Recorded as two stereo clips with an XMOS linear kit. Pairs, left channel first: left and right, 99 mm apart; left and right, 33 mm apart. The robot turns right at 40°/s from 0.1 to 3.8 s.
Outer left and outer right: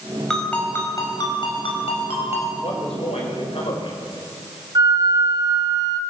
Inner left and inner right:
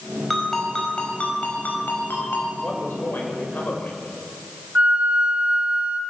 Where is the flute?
45° right (ahead or behind), 1.4 m.